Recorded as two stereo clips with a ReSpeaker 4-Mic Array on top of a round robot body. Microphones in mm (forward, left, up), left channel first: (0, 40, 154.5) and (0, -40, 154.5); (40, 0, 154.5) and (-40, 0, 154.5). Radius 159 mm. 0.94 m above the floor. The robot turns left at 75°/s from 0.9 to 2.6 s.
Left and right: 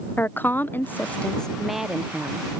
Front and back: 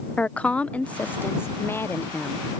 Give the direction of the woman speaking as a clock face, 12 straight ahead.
10 o'clock.